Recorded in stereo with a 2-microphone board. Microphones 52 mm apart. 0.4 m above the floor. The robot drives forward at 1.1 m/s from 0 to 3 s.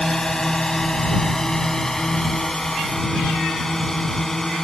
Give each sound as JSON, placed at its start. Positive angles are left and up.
{"t": 0.0, "sound": "a drone", "side_deg": 10}